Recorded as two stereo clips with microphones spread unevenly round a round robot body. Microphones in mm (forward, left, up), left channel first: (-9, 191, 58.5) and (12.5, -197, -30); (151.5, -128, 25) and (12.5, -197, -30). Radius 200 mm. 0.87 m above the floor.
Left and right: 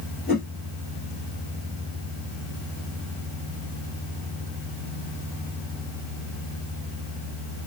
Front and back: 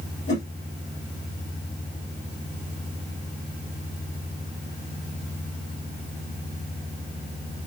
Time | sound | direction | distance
0.3 | a whoosh | 20° left | 3 m